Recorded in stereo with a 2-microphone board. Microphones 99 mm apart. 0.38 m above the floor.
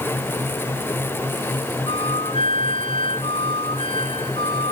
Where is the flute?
70° left (ahead or behind).